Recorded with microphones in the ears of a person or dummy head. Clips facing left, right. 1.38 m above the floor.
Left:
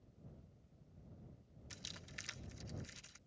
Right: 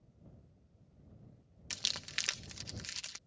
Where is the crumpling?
85° right.